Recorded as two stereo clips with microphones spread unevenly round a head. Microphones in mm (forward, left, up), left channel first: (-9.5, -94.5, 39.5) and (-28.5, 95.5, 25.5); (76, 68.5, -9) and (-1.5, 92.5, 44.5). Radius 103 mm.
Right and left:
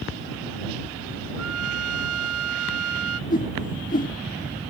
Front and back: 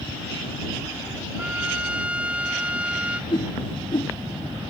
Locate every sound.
1.4 s a trumpet: 100° left
3.3 s a whoosh: 90° right